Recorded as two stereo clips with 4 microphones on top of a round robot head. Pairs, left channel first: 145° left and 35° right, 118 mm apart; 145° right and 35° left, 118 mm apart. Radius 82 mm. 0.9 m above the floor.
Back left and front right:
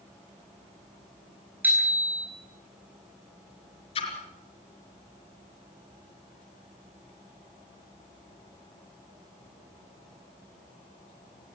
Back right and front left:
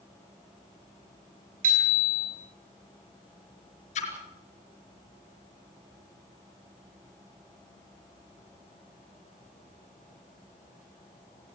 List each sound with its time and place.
1.6 s a bicycle bell: 40° left, 7 m
4.0 s a splash: 175° right, 4 m